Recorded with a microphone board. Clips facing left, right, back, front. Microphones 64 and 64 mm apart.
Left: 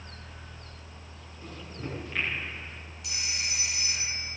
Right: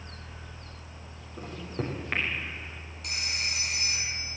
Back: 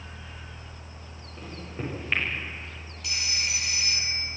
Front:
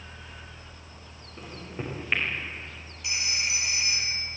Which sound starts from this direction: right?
A microwave, at 1.4 s.